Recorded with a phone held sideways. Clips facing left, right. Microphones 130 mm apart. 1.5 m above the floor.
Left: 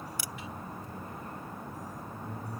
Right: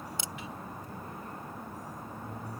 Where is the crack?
25° right (ahead or behind).